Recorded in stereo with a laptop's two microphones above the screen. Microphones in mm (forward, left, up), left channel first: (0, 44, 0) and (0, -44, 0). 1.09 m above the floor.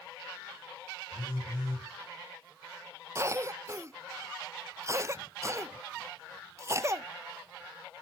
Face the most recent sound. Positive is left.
turn(degrees=-35)  # may be behind; listen again after turning